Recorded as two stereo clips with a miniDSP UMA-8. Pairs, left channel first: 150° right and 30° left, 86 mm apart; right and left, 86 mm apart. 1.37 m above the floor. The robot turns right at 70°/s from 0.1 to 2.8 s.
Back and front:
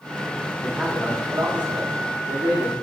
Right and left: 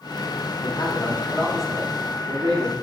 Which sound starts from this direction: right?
A man speaking, at 0.6 s.